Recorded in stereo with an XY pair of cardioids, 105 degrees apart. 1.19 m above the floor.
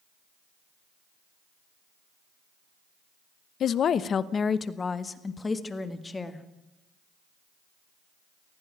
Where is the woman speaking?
60° left, 0.8 m; by 6.5 s 20° left, 2 m.